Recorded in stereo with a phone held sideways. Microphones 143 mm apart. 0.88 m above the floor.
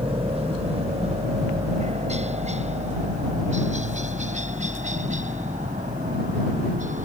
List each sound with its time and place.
0.0 s a helicopter: 45° right (ahead or behind); by 7.1 s 60° right (ahead or behind)